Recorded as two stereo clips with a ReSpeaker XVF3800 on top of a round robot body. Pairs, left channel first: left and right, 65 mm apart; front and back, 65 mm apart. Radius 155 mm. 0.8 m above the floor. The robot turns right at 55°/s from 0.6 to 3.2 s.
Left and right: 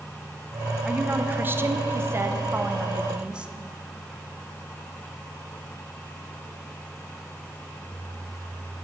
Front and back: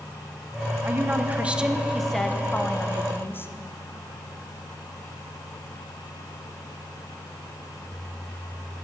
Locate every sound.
0.8 s a woman speaking: 155° right, 0.7 m; by 3.5 s 25° right, 0.7 m